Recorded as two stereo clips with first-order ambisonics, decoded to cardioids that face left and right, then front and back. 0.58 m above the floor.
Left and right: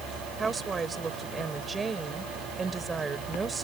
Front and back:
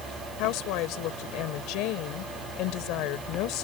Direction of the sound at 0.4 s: 20° right.